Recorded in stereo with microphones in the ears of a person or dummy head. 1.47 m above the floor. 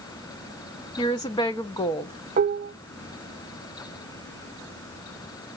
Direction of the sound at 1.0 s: 20° left (ahead or behind).